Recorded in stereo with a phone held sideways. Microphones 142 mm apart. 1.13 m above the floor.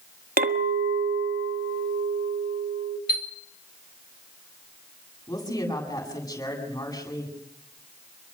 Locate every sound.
0.4 s a clink: 90° right, 1.4 m
3.1 s a chime: 75° left (ahead or behind), 3 m
5.3 s a woman speaking: 25° left (ahead or behind), 8.5 m